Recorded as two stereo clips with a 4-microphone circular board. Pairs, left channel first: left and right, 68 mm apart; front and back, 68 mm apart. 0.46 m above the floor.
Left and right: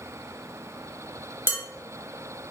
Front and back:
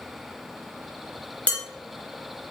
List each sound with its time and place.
1.5 s dishes clattering: 55° right, 0.6 m